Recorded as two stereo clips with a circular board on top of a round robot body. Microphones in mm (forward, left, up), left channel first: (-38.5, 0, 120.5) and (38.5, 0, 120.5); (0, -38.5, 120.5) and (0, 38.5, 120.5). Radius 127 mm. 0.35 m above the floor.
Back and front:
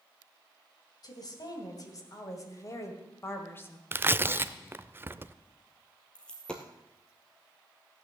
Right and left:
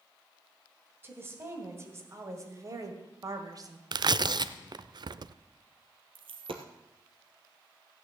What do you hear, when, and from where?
1.0 s a woman speaking: 150° left, 3 m; by 3.8 s 120° left, 2 m
3.9 s tearing paper: 65° left, 0.5 m
6.2 s a dropped coin: 100° left, 1.4 m